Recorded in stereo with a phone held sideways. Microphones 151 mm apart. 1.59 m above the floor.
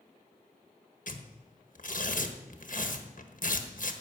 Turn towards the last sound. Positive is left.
turn(degrees=60)  # may be behind; listen again after turning